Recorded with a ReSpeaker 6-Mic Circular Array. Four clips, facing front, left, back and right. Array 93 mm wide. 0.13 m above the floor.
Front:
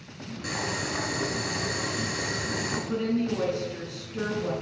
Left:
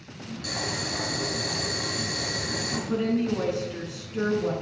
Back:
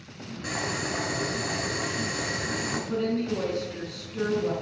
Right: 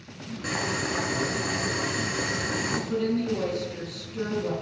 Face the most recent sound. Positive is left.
turn(degrees=70)